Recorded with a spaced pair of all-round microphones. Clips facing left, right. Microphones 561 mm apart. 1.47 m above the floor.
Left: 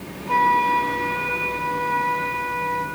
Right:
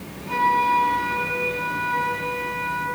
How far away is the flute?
About 4 m.